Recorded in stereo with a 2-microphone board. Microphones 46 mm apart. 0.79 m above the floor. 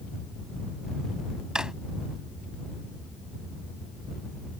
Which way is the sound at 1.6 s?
15° right (ahead or behind).